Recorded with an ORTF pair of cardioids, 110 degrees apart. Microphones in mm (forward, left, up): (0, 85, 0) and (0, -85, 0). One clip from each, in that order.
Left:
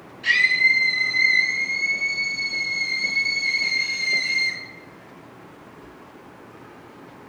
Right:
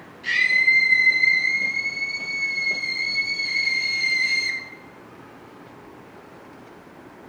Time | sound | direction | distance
0.2 | a scream | 25° left | 7.5 m